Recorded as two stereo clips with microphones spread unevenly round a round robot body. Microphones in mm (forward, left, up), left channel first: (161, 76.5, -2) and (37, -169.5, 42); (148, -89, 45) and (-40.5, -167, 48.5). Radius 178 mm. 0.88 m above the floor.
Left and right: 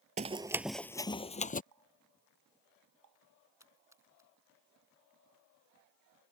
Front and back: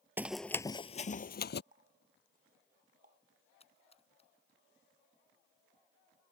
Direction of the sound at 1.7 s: 110° right.